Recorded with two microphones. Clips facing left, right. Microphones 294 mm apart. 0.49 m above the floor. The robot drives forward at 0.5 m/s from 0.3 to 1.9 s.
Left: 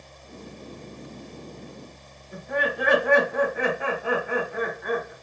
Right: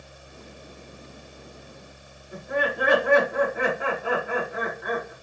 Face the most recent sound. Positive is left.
turn(degrees=-10)  # may be behind; listen again after turning